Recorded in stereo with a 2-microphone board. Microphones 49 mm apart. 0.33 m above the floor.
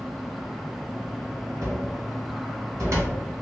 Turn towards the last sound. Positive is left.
turn(degrees=-70)  # may be behind; listen again after turning